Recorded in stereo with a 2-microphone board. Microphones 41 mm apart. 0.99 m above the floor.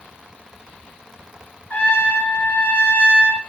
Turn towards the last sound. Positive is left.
turn(degrees=35)  # may be behind; listen again after turning